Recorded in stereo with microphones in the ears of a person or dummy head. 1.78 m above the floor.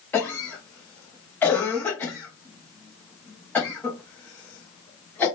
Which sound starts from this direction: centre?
A cough, at 0.1 s.